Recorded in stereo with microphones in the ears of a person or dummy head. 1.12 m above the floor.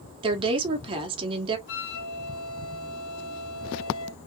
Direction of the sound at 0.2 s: 30° right (ahead or behind).